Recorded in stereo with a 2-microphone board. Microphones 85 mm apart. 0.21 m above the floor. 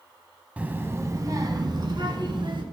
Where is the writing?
I don't hear writing.